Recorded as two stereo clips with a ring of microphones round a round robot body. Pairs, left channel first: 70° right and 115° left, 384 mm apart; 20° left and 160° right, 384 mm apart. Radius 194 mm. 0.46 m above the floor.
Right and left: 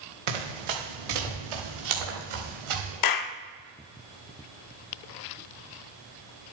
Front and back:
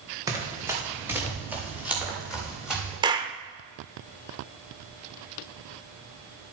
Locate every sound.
0.3 s running footsteps: 120° left, 5 m; by 2.9 s 115° left, 6.5 m
3.0 s a clap: 80° right, 0.8 m